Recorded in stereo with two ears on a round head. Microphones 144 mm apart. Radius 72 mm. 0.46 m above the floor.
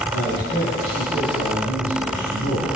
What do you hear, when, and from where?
0.1 s a man speaking: 65° right (ahead or behind), 3 m